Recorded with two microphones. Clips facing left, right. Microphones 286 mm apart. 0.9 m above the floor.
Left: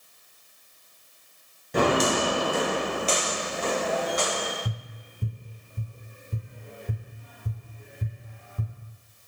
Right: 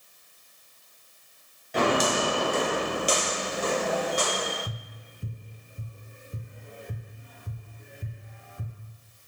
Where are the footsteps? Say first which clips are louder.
Left 2 dB; 45° left (ahead or behind), 1.1 m; by 4.5 s 35° right (ahead or behind), 3 m.